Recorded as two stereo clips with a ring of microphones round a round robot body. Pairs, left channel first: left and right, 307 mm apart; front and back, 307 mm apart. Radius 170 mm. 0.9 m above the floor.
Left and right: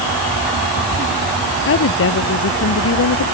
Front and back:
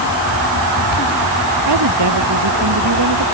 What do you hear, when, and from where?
1.7 s a woman speaking: 140° left; by 3.2 s 135° left